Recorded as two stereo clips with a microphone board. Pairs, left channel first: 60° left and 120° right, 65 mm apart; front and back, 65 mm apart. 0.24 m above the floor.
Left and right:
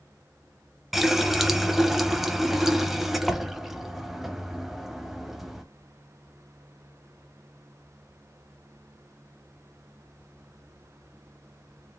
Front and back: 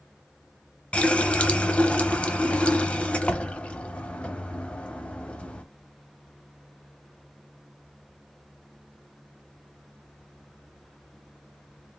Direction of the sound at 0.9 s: 40° right.